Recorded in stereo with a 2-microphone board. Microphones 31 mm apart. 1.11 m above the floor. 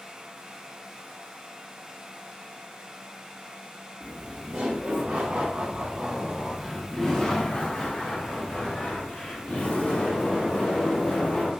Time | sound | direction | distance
4.0 | laughter | 80° right | 1.5 m